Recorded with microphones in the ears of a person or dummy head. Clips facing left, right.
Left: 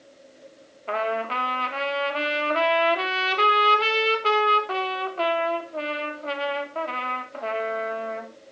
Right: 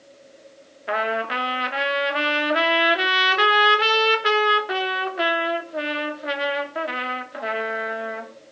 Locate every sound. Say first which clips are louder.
0.9 s a trumpet: right 1 dB; 20° right (ahead or behind), 3 m